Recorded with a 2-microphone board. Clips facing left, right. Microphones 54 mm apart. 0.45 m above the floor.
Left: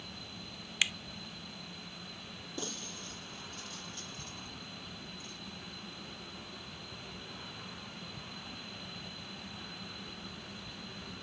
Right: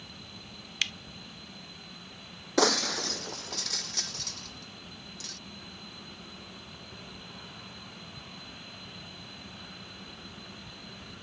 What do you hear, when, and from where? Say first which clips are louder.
0.8 s a finger snap: left 1 dB; 10° left (ahead or behind)
2.6 s breaking glass: right 18 dB; 80° right